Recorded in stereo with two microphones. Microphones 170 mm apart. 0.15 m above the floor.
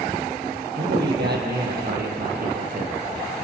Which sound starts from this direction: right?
A man speaking, at 0.8 s.